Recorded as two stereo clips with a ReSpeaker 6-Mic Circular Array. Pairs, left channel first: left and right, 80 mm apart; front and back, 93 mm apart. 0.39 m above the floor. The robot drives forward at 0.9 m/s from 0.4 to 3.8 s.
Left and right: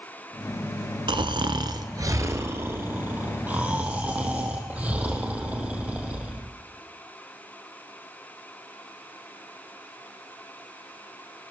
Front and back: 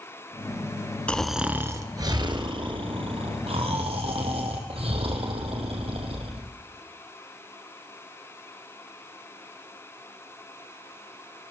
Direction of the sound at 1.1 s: 75° right.